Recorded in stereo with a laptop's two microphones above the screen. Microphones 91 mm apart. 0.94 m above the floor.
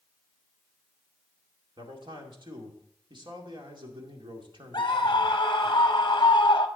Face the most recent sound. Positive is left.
turn(degrees=50)  # may be behind; listen again after turning